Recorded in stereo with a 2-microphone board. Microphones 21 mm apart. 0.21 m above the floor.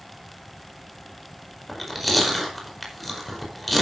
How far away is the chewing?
About 5 m.